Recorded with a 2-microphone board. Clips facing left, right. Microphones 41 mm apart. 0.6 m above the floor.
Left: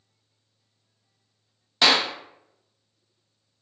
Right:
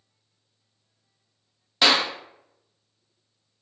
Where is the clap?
5° right (ahead or behind), 0.7 m.